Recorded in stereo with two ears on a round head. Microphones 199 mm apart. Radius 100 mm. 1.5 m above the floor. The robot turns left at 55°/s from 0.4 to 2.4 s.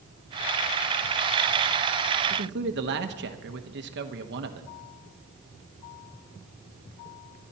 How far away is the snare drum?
I don't hear a snare drum.